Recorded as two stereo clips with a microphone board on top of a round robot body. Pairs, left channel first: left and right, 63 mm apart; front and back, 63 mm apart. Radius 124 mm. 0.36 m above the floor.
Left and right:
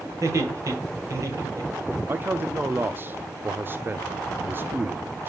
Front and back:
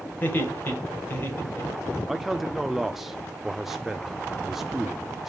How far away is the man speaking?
About 0.9 m.